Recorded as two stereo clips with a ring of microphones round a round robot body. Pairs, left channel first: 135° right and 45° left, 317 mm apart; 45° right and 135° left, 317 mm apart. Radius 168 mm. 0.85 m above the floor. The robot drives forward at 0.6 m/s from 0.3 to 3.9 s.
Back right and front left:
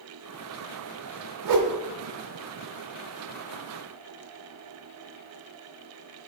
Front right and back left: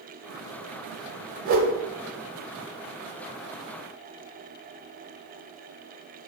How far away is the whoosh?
About 1.1 m.